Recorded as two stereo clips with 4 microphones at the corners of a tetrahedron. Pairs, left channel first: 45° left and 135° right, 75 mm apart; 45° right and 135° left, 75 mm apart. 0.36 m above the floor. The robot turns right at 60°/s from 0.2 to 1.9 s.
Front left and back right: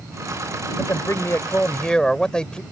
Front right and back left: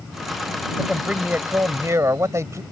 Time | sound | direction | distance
0.8 | a man speaking | 50° left | ?